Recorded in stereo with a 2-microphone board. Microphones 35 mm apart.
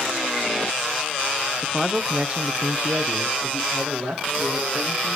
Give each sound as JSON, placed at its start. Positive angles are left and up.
{"t": 1.6, "sound": "a man speaking", "side_deg": -5, "distance_m": 1.1}